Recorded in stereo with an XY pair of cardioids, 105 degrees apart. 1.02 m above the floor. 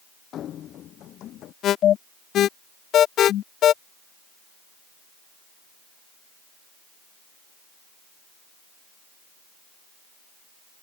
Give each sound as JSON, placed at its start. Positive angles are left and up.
{"t": 0.3, "sound": "running footsteps", "azimuth_deg": 65}
{"t": 1.6, "sound": "an alarm", "azimuth_deg": 70}